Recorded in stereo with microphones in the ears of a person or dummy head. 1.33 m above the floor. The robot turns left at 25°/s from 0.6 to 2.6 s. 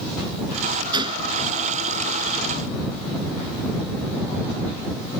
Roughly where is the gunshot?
Centre.